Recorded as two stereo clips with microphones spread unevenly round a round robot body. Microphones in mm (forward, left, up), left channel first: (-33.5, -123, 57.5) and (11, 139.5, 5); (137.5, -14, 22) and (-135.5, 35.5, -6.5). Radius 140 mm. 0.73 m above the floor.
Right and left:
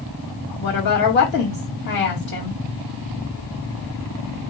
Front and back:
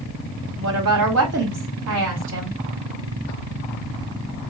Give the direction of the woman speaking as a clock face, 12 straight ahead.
5 o'clock.